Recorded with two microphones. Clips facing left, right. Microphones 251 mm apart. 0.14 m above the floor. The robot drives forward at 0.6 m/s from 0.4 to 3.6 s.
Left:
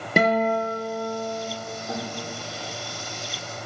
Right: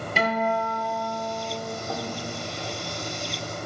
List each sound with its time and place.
0.2 s a guitar: 55° left (ahead or behind), 1.3 m; by 1.5 s 65° left (ahead or behind), 1.2 m
1.9 s a guitar: 10° left (ahead or behind), 3.5 m